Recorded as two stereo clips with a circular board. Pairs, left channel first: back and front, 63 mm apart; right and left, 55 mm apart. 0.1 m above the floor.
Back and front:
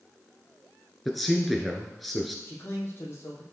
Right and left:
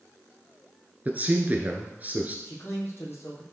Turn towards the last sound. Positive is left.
turn(degrees=-130)